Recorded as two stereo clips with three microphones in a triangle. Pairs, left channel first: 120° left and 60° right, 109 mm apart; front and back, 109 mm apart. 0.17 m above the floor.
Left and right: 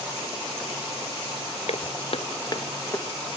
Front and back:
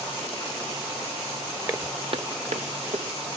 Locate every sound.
1.7 s footsteps: 115° left, 1.1 m; by 3.0 s 165° right, 1.7 m